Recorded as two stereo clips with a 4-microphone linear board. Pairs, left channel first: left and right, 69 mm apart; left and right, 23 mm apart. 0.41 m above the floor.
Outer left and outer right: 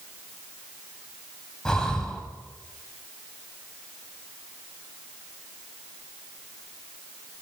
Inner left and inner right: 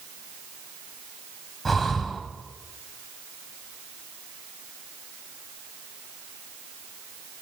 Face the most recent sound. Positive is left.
turn(degrees=10)  # may be behind; listen again after turning